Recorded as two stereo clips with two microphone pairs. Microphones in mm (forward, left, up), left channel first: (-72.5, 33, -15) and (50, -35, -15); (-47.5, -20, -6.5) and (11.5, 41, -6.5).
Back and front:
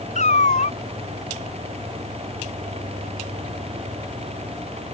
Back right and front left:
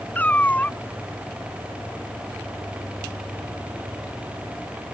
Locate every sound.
0.1 s a cat meowing: 160° left